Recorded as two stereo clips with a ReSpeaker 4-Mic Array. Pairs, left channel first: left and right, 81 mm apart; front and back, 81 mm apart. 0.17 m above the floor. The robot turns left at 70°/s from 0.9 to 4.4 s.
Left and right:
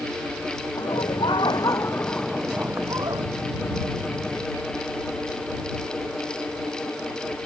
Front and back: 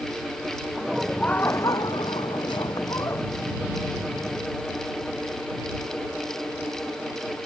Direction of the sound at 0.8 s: 100° left.